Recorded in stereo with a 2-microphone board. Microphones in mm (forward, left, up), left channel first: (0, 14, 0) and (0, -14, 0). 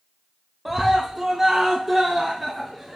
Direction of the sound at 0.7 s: 5° right (ahead or behind).